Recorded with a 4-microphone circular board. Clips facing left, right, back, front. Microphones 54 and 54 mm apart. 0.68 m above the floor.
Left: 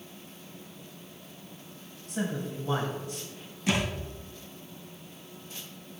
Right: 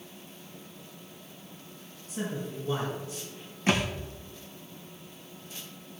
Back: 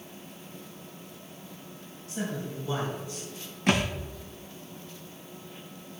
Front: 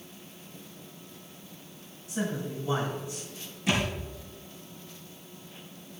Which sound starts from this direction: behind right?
A thud, at 3.7 s.